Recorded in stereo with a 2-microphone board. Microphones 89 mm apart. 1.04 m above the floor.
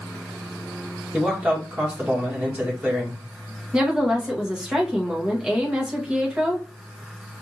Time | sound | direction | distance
1.1 | a man speaking | 15° right (ahead or behind) | 1.8 m
3.7 | a woman speaking | 10° right (ahead or behind) | 1.2 m